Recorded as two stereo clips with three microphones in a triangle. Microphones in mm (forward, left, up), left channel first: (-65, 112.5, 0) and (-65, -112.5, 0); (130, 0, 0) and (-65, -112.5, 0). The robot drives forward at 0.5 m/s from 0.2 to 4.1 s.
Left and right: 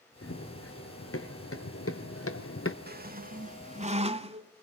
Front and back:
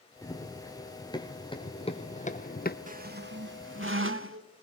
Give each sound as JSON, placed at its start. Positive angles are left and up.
{"t": 0.2, "sound": "running footsteps", "azimuth_deg": 105, "distance_m": 3.5}
{"t": 2.9, "sound": "a squeak", "azimuth_deg": -110, "distance_m": 0.6}